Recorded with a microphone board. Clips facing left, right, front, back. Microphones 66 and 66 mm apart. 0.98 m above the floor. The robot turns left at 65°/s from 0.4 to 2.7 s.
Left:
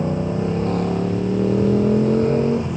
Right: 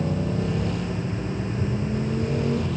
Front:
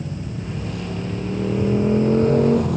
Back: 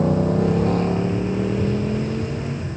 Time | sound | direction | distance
0.0 | a motorcycle | 155° left | ?